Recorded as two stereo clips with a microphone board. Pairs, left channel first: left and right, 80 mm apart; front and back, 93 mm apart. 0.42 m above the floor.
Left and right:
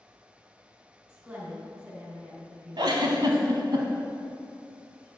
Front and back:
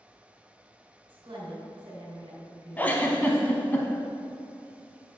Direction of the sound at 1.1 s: 150° right.